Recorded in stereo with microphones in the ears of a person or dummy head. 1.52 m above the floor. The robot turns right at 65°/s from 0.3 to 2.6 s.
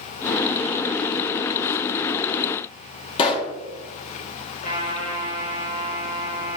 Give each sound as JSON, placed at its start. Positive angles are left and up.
{"t": 3.2, "sound": "a pop", "side_deg": 30, "distance_m": 1.6}
{"t": 4.6, "sound": "a trumpet", "side_deg": 45, "distance_m": 3.0}